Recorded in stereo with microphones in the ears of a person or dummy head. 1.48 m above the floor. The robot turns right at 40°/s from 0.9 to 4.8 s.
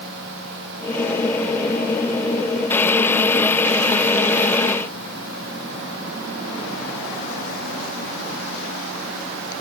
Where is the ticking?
No ticking in this recording.